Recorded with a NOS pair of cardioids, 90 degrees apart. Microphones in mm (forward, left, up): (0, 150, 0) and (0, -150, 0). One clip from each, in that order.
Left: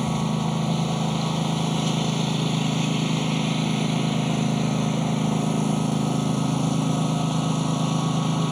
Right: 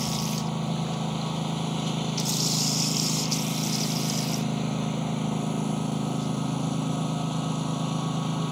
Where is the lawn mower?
35° left.